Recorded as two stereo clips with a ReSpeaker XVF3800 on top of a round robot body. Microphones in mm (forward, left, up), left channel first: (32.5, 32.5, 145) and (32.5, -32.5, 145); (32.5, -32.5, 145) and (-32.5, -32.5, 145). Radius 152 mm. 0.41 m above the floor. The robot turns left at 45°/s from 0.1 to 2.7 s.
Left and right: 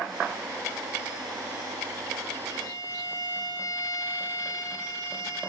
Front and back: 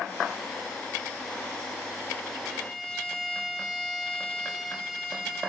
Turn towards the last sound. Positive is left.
turn(degrees=80)